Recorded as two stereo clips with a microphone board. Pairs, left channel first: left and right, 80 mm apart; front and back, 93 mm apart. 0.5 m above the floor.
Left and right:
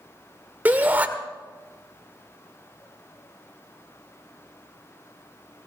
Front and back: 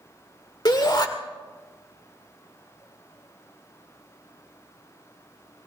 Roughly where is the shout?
Ahead right.